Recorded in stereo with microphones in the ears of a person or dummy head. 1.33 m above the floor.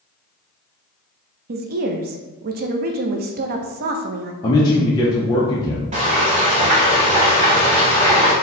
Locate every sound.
1.5 s a woman speaking: 50° right (ahead or behind), 0.5 m
4.4 s a man speaking: 20° left (ahead or behind), 0.6 m
5.9 s frying: 30° right (ahead or behind), 1.3 m